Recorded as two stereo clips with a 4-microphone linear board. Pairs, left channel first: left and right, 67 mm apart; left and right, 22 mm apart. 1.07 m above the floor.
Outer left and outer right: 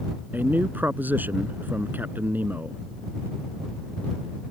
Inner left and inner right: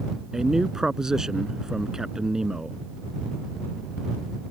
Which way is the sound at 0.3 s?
25° right (ahead or behind).